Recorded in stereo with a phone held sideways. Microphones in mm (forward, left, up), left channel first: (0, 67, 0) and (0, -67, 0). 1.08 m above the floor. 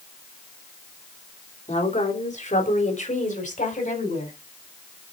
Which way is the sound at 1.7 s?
60° left (ahead or behind).